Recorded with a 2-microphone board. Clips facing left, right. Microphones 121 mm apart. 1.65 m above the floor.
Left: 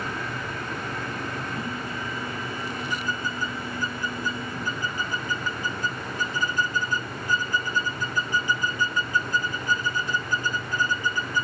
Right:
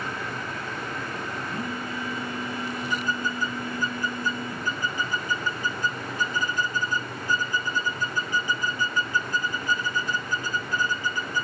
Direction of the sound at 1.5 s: 60° right (ahead or behind).